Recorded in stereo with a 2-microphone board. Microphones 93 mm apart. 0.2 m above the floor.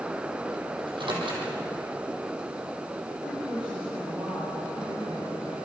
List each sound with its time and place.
0.8 s a microwave: 65° right (ahead or behind), 5.5 m
3.2 s a woman speaking: 10° right (ahead or behind), 6.5 m